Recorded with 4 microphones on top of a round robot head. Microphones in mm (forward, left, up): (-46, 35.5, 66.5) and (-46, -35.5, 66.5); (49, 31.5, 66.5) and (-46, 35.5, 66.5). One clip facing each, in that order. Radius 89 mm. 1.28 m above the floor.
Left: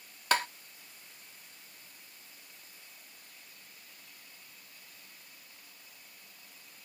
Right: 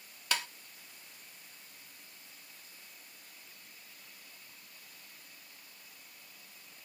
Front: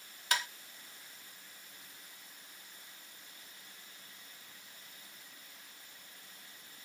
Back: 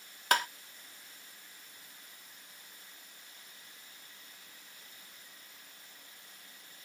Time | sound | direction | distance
0.3 | tapping | 135° left | 0.5 m